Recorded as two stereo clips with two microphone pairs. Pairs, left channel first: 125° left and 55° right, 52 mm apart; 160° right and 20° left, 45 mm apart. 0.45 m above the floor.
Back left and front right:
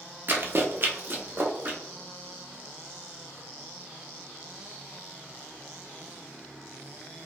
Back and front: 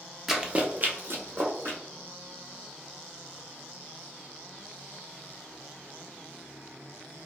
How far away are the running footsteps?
About 0.5 m.